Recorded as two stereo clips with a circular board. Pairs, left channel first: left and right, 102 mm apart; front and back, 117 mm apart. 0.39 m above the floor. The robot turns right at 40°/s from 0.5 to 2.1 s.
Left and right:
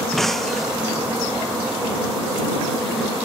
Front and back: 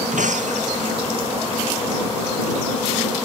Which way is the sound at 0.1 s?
175° left.